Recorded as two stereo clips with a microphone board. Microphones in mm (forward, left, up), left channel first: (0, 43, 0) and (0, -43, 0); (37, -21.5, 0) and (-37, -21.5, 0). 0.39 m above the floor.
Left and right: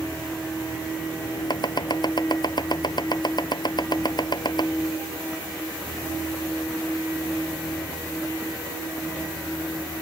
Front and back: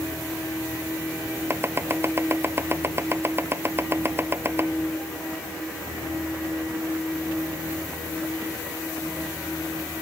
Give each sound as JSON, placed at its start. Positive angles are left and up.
{"t": 1.5, "sound": "chopping", "azimuth_deg": 125}